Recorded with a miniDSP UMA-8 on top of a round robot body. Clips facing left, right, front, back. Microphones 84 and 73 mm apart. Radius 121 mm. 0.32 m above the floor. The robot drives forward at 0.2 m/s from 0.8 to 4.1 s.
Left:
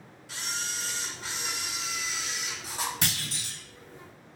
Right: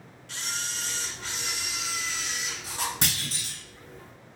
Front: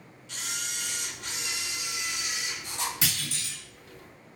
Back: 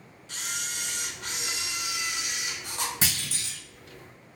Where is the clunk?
130° right, 1.9 m; by 3.6 s 135° right, 2.0 m.